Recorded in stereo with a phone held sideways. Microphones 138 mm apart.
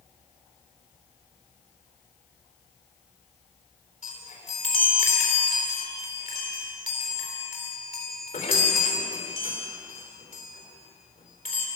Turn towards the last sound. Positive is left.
turn(degrees=55)  # may be behind; listen again after turning